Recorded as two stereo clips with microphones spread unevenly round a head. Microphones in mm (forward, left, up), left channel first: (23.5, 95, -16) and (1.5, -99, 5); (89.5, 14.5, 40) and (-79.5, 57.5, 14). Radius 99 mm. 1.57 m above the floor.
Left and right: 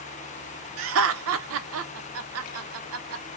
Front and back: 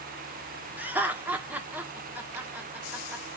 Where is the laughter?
110° right, 0.7 m.